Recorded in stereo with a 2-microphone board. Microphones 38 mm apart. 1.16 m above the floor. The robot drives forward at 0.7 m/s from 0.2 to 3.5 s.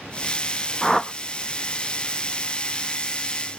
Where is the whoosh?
10° left (ahead or behind), 0.7 m; by 1.1 s 15° left (ahead or behind), 0.5 m.